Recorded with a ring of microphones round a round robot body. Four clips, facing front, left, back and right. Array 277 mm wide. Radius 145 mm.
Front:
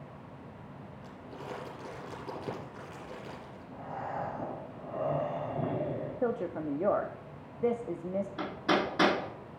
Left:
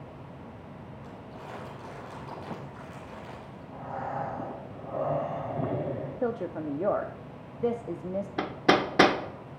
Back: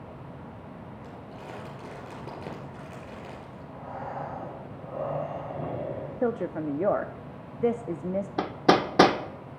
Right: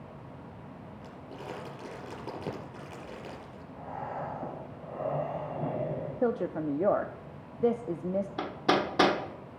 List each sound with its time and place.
1.0 s crumpling: 125° right, 5 m
3.7 s breathing: 75° left, 6 m
6.2 s a woman speaking: 150° right, 0.6 m
8.4 s hammering: 160° left, 1.0 m